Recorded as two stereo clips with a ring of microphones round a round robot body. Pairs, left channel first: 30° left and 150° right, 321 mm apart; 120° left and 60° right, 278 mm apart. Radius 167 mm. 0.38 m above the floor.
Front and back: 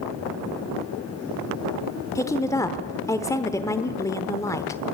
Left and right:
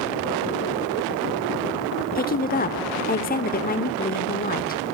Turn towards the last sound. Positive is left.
turn(degrees=100)